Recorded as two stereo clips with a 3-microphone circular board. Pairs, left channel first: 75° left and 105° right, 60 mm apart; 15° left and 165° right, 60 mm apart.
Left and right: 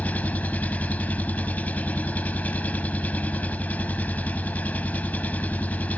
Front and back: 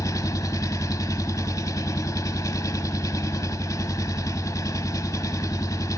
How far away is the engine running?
About 0.9 m.